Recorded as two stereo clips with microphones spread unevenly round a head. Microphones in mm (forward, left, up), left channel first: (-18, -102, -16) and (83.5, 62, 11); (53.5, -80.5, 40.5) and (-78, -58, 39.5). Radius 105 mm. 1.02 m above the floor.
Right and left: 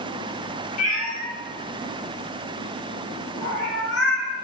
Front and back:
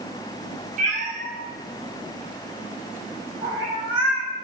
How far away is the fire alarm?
I don't hear a fire alarm.